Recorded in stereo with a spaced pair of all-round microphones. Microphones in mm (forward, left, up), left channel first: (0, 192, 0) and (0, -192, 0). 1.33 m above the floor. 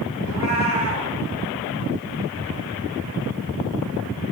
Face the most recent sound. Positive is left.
turn(degrees=45)  # may be behind; listen again after turning